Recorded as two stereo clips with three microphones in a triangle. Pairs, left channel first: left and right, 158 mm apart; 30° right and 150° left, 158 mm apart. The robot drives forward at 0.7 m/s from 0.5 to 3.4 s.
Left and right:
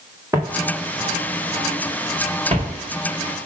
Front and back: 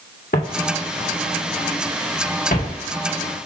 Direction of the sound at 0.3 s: 20° right.